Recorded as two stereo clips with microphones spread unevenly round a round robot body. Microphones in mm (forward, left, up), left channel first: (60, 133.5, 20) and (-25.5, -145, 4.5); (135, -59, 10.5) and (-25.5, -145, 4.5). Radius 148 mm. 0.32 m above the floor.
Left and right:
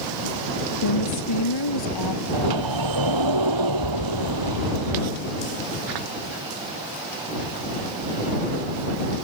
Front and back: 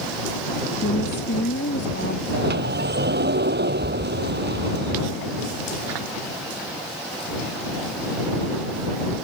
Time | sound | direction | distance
0.8 | a woman speaking | 75° left | ?
2.3 | a sliding door | 125° right | ?